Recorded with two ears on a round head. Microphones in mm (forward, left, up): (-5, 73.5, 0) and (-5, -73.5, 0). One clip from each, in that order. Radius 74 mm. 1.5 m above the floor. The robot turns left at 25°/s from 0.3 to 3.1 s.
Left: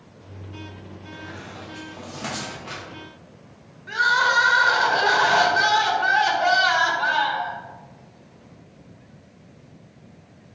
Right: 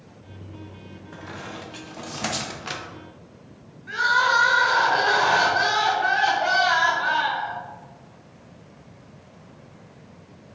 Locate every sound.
1.1 s a squeak: 25° right (ahead or behind), 1.0 m; by 2.8 s 55° right (ahead or behind), 1.0 m
3.9 s crying: 15° left (ahead or behind), 1.3 m